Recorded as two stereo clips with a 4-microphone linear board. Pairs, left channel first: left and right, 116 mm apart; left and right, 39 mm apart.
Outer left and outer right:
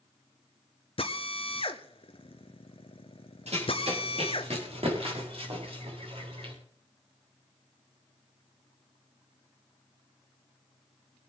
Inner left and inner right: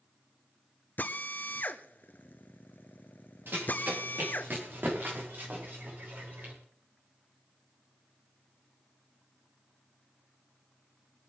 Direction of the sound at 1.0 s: 55° left (ahead or behind).